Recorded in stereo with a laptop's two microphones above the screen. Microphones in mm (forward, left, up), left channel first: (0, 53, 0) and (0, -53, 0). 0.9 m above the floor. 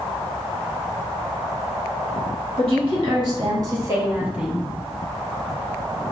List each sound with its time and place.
2.6 s a woman speaking: 55° right (ahead or behind), 1.6 m; by 4.7 s centre (ahead or behind), 1.0 m